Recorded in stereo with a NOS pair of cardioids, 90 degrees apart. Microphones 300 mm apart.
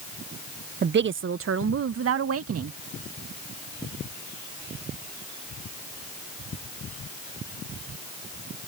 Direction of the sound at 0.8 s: 35° right.